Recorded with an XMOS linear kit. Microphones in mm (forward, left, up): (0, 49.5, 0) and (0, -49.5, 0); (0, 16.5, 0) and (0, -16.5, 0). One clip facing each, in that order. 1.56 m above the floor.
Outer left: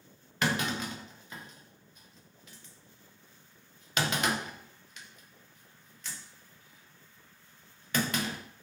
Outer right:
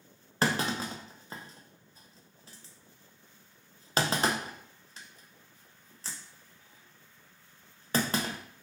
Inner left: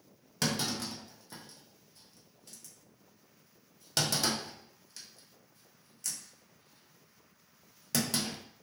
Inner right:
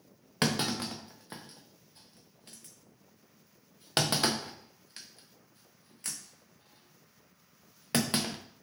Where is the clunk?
35° right (ahead or behind), 0.5 m.